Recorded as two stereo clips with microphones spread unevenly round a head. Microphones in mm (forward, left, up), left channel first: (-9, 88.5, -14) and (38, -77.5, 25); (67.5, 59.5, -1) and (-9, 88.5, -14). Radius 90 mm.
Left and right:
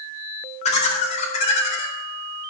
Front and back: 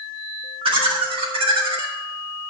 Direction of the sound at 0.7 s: 160° left.